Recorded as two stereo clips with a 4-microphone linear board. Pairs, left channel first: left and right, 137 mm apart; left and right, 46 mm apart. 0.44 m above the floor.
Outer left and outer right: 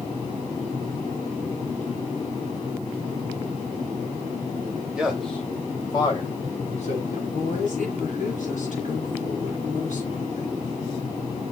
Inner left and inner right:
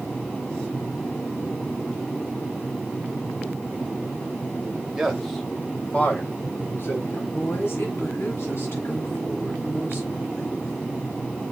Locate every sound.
4.9 s a man speaking: 5° right (ahead or behind), 2 m; by 7.2 s 60° left (ahead or behind), 3.5 m
7.3 s a woman speaking: 65° left (ahead or behind), 8 m